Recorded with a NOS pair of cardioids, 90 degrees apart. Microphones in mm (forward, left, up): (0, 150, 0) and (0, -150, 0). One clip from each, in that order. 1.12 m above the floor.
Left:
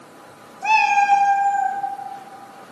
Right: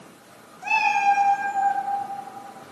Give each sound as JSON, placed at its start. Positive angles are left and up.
{"t": 0.6, "sound": "a cat meowing", "azimuth_deg": 40, "distance_m": 1.2}